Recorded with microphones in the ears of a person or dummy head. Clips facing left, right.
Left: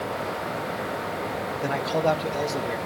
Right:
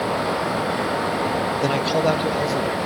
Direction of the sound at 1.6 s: 55° right (ahead or behind).